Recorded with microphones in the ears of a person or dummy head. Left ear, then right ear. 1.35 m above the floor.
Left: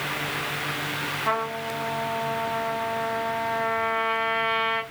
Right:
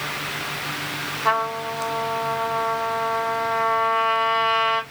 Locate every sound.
1.2 s a trumpet: 50° right (ahead or behind), 1.4 m